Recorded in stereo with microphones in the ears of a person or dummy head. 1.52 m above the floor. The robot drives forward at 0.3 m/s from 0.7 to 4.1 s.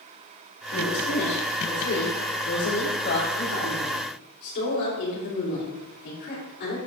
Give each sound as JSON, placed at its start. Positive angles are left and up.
{"t": 0.7, "sound": "a woman speaking", "side_deg": 75, "distance_m": 3.0}